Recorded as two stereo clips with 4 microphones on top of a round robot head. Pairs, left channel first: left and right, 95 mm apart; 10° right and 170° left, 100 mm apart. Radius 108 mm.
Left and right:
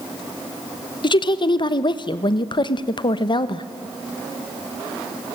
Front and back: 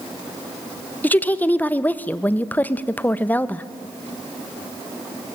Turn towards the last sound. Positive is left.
turn(degrees=65)